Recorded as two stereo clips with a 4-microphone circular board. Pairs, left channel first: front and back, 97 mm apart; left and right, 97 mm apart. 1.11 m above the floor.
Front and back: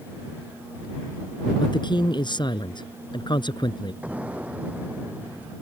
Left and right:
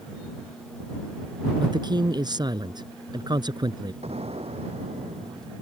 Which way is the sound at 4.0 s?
105° right.